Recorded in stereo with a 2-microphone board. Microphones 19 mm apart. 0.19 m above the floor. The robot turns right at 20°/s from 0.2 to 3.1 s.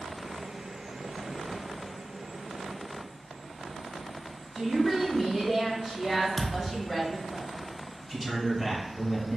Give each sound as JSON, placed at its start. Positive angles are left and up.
{"t": 4.5, "sound": "a woman speaking", "side_deg": 15, "distance_m": 1.6}
{"t": 6.4, "sound": "a thud", "side_deg": 25, "distance_m": 0.5}
{"t": 8.1, "sound": "a man speaking", "side_deg": 0, "distance_m": 1.5}